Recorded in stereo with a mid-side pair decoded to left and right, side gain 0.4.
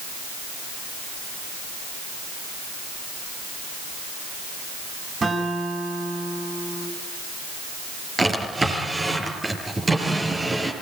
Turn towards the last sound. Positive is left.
turn(degrees=-25)